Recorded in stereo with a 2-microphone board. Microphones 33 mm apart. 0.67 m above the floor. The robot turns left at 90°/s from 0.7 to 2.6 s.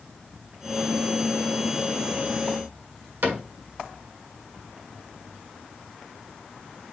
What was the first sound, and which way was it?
A cupboard door, 65° right (ahead or behind).